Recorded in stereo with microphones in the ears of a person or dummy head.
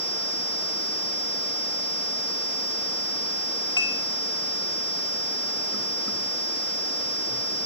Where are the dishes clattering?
25° left (ahead or behind), 1.9 m.